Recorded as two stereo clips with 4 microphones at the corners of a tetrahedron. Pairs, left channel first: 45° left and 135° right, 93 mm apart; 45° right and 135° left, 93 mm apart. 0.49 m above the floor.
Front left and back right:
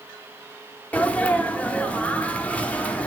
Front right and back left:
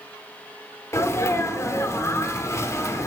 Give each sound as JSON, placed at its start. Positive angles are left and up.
{"t": 0.9, "sound": "a sneeze", "azimuth_deg": -20, "distance_m": 0.8}